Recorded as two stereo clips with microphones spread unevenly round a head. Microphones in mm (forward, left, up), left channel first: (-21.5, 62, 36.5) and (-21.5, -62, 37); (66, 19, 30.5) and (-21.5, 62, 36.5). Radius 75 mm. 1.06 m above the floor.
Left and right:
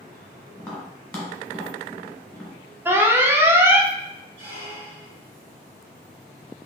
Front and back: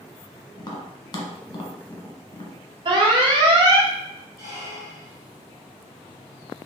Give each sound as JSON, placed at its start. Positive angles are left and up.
{"t": 0.6, "sound": "tapping", "azimuth_deg": 10, "distance_m": 1.0}
{"t": 2.9, "sound": "an alarm", "azimuth_deg": -160, "distance_m": 0.5}
{"t": 4.4, "sound": "a squeak", "azimuth_deg": -120, "distance_m": 1.7}